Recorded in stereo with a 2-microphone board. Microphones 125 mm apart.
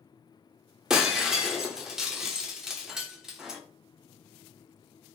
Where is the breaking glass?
5° right (ahead or behind), 0.7 m.